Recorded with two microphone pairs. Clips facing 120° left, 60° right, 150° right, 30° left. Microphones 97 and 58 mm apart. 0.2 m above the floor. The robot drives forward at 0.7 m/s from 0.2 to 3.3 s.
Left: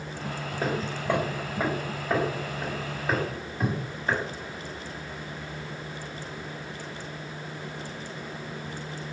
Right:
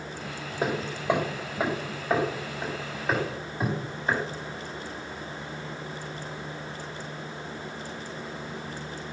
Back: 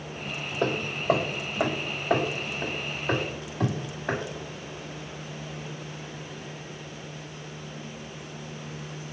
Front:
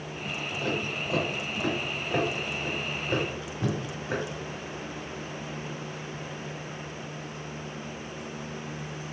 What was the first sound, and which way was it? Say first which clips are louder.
Hammering: right 2 dB, back 7 dB; 135° right.